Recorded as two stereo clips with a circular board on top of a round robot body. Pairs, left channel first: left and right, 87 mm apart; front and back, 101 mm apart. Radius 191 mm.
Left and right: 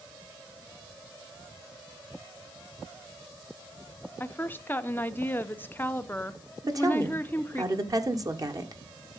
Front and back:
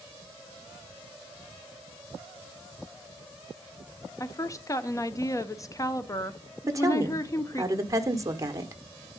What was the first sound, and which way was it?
A woman speaking, 35° left.